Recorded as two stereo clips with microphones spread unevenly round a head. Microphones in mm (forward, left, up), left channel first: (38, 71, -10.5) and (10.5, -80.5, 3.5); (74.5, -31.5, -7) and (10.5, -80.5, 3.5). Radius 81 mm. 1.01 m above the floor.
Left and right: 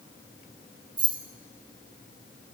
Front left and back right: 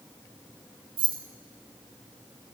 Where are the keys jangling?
165° right, 1.1 m.